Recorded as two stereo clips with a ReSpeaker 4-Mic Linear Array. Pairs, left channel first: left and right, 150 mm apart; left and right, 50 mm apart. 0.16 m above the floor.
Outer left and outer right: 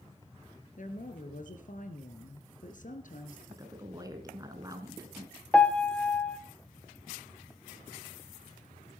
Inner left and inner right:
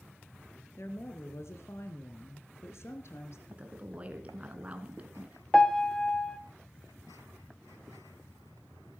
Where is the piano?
10° left (ahead or behind), 0.8 m.